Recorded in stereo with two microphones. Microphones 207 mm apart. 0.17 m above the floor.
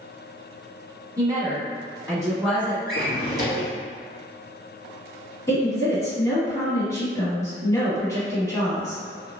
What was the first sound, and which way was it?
A woman speaking, 15° right (ahead or behind).